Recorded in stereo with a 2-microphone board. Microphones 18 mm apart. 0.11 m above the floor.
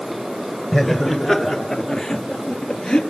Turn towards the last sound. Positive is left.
turn(degrees=60)  # may be behind; listen again after turning